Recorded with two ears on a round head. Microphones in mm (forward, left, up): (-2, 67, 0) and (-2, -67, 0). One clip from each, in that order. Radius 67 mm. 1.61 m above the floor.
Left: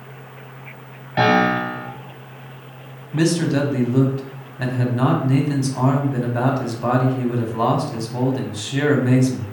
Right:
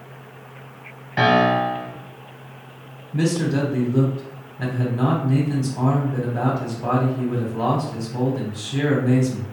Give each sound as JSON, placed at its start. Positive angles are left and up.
{"t": 1.2, "sound": "a piano", "side_deg": -5, "distance_m": 0.7}
{"t": 3.1, "sound": "a man speaking", "side_deg": 25, "distance_m": 0.7}